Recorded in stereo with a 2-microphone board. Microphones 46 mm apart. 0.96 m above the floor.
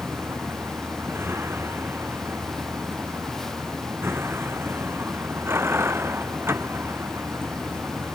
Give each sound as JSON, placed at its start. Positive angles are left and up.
{"t": 0.0, "sound": "a vehicle", "side_deg": -65}